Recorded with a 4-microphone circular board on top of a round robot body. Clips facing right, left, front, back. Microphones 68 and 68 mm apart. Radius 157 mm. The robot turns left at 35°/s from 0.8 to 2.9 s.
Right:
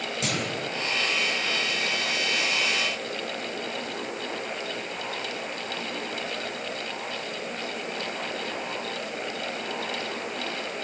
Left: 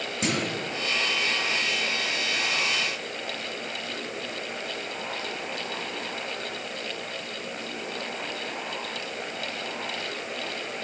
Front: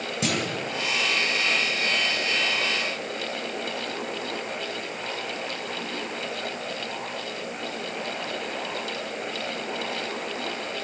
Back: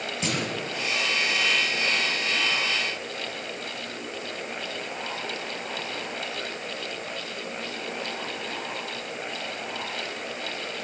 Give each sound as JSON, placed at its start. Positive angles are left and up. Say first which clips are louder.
{"t": 0.2, "sound": "a clunk", "louder": "left 3 dB, front 2 dB", "azimuth_deg": 30, "distance_m": 4.5}